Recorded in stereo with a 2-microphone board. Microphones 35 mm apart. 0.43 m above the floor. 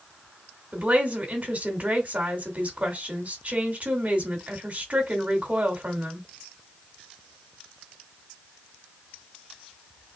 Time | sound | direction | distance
0.7 | a woman speaking | 45° right (ahead or behind) | 2.5 m